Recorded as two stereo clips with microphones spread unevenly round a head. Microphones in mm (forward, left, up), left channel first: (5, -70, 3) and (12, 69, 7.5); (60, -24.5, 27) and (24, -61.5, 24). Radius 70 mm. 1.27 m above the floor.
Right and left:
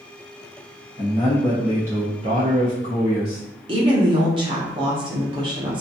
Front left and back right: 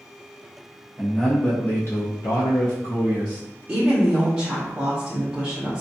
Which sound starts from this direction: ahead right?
A man speaking, at 1.0 s.